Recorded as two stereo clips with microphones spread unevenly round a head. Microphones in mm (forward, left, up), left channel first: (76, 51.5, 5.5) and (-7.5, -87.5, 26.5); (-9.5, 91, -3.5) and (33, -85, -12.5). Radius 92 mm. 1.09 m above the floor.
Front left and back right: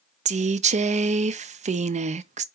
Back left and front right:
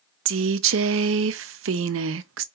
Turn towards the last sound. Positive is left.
turn(degrees=-75)